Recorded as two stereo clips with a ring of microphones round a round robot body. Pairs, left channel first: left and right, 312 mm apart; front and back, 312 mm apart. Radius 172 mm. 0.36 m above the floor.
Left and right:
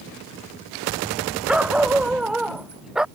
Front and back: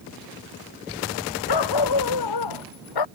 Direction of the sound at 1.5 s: 5° right.